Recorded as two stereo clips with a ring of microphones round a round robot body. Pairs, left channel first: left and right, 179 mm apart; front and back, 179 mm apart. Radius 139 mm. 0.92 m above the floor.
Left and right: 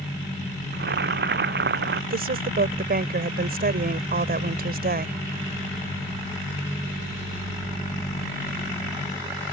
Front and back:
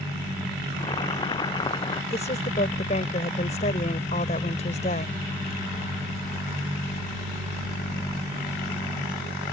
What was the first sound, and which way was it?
Boiling, 75° right.